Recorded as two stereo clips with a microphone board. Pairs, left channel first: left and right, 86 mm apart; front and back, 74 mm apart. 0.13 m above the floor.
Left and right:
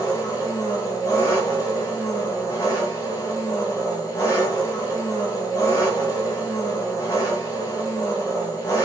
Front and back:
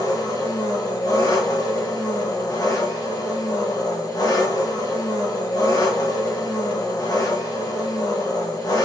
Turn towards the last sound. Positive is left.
turn(degrees=40)